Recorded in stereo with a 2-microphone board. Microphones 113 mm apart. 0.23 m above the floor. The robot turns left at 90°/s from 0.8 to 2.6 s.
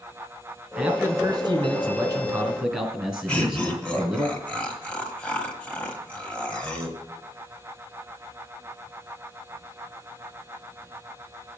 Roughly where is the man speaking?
Ahead right.